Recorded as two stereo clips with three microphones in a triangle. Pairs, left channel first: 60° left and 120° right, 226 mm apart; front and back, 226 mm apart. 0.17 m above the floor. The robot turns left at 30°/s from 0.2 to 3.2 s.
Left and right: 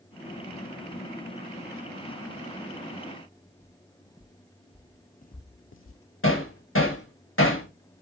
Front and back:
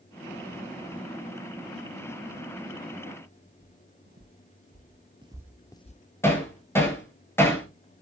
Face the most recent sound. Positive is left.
turn(degrees=80)